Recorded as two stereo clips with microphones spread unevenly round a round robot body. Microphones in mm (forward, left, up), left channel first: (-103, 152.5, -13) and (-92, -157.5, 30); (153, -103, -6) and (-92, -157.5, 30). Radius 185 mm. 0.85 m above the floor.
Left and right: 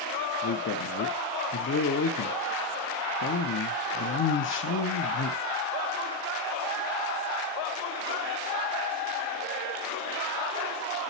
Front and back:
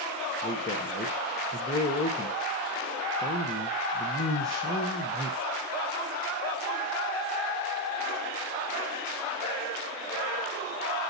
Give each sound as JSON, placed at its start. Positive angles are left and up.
{"t": 0.4, "sound": "a man speaking", "azimuth_deg": 90, "distance_m": 0.8}